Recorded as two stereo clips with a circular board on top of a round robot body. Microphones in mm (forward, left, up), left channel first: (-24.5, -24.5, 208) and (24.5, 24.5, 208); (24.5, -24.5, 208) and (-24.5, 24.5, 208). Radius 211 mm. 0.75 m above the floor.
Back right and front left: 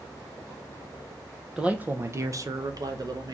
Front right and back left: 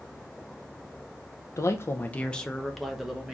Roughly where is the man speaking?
Ahead right.